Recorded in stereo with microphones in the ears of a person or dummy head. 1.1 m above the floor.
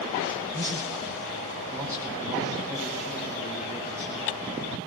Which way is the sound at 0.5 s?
15° right (ahead or behind).